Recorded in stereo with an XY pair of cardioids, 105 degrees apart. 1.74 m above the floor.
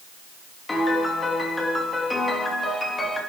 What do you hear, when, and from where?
0.7 s a piano: 20° left, 3 m